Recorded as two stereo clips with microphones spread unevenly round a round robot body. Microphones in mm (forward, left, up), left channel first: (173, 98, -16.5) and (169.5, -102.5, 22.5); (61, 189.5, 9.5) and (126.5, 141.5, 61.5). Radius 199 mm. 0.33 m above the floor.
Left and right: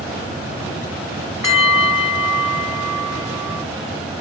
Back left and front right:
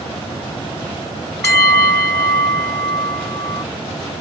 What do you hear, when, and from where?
1.4 s a bell: 175° right